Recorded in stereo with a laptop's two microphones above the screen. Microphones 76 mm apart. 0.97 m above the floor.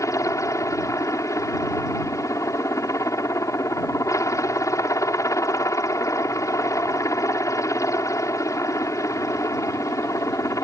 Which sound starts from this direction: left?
A helicopter, at 0.0 s.